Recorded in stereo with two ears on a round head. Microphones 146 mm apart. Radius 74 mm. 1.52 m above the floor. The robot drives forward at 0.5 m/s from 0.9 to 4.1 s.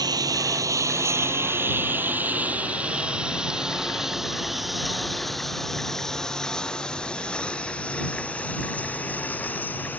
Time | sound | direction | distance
0.0 | a lawn mower | 25° right (ahead or behind) | ?